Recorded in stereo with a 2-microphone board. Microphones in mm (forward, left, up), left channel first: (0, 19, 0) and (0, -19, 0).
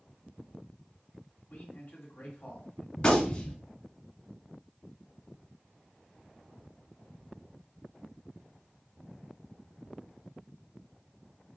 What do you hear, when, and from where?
1.5 s a man speaking: 55° left (ahead or behind), 1.8 m
3.0 s a gunshot: 25° left (ahead or behind), 1.1 m